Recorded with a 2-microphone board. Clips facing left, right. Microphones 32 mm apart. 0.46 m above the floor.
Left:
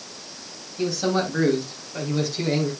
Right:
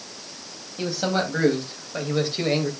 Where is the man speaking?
25° right (ahead or behind), 3.5 m; by 2.7 s 40° right (ahead or behind), 2.5 m.